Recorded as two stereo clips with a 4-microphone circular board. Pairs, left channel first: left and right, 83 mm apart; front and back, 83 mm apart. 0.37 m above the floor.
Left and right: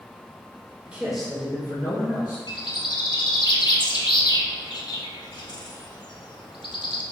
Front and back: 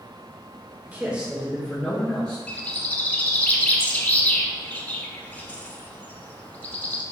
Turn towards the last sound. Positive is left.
turn(degrees=70)